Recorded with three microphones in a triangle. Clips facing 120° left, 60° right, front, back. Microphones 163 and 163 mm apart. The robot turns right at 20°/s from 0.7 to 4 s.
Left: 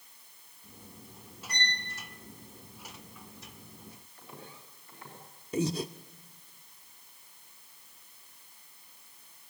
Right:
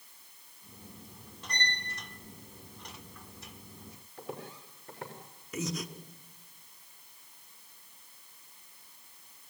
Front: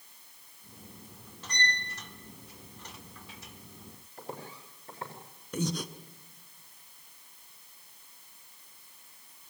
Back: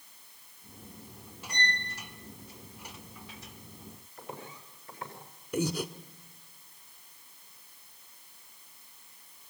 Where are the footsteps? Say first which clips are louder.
Right 9 dB, front 2 dB; 55° right, 6.5 m; by 5.2 s 60° right, 6.5 m.